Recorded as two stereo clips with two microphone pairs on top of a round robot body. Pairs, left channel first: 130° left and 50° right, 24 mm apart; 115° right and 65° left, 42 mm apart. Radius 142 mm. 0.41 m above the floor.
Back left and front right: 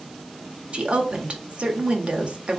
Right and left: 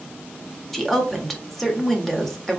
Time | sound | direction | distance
0.7 | a woman speaking | 35° right | 1.5 m